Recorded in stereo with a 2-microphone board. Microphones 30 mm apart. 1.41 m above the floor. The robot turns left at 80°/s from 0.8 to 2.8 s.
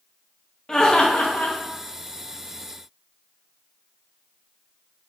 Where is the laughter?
150° left, 0.5 m; by 1.6 s 90° left, 0.5 m.